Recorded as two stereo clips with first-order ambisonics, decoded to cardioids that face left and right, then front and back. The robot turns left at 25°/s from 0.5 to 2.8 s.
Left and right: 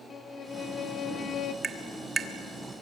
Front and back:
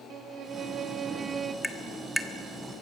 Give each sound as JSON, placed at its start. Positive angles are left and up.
{"t": 0.1, "sound": "a violin", "azimuth_deg": 145, "distance_m": 0.8}
{"t": 1.6, "sound": "tapping", "azimuth_deg": -85, "distance_m": 1.1}